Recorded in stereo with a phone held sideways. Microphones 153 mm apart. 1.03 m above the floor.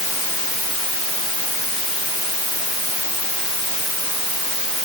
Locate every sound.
Only background noise.